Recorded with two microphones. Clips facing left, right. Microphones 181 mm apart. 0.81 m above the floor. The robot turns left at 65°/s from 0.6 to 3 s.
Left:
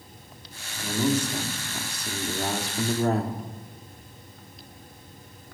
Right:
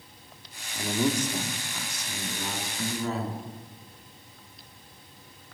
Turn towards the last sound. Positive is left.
turn(degrees=55)